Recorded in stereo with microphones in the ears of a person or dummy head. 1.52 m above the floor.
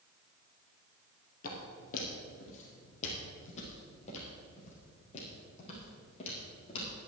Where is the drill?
I don't hear a drill.